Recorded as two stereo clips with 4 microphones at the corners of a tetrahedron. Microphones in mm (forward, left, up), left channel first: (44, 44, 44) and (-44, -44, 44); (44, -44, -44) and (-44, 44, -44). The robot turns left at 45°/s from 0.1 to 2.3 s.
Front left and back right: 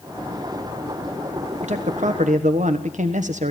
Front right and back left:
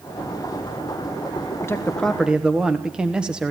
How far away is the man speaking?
About 1.3 m.